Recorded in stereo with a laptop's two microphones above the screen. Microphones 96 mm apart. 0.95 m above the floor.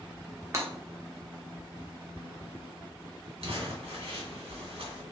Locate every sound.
0.5 s breaking glass: 30° right (ahead or behind), 1.0 m
3.4 s crumpling: 85° right, 1.6 m